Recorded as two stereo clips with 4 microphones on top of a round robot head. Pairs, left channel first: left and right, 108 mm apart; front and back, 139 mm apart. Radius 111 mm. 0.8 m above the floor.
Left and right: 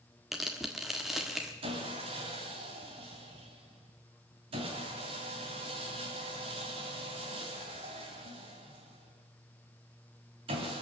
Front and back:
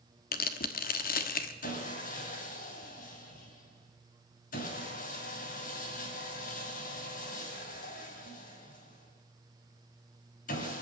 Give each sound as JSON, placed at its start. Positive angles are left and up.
{"t": 0.3, "sound": "tearing paper", "azimuth_deg": 0, "distance_m": 1.4}
{"t": 1.6, "sound": "sawing", "azimuth_deg": -40, "distance_m": 3.0}